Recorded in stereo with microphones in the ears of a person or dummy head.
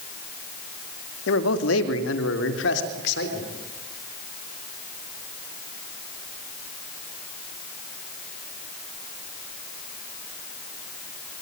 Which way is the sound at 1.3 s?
75° left (ahead or behind).